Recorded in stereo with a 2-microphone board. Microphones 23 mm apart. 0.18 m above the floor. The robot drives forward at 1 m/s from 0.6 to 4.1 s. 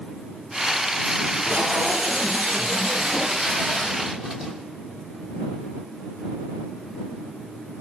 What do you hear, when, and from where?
1.2 s tape being pulled: 55° right (ahead or behind), 3.5 m; by 4.5 s 30° right (ahead or behind), 5.5 m